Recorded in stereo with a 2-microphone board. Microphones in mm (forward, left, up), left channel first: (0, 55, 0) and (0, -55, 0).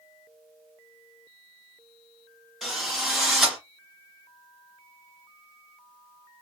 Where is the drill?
Centre (ahead or behind), 2 m.